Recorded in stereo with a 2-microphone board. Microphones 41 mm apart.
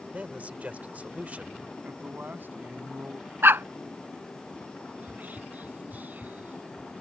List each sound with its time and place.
0.1 s a man speaking: 40° right (ahead or behind)
1.8 s a man speaking: 60° right (ahead or behind)
3.4 s a dog barking: 75° right (ahead or behind)
5.0 s whispering: 45° right (ahead or behind)